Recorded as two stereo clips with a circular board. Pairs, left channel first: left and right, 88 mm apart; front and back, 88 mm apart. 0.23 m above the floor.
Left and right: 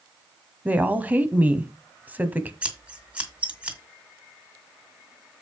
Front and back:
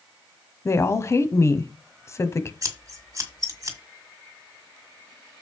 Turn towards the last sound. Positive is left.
turn(degrees=-160)